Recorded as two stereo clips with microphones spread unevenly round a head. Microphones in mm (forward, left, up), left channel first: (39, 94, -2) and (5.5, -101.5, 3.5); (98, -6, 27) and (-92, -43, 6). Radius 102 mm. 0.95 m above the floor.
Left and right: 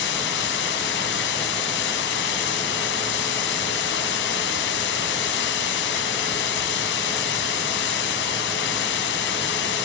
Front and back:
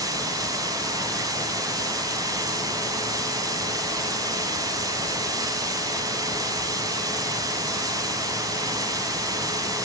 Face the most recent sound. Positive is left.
turn(degrees=115)